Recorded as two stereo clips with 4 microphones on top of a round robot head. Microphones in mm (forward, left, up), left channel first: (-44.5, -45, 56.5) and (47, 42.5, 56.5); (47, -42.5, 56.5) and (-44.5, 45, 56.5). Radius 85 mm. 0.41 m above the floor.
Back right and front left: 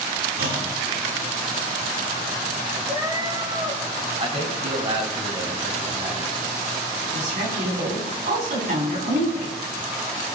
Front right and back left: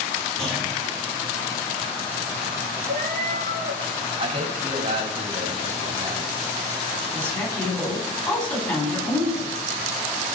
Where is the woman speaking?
35° left, 5 m.